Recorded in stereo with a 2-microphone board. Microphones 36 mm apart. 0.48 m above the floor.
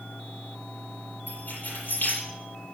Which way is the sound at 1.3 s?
55° left (ahead or behind).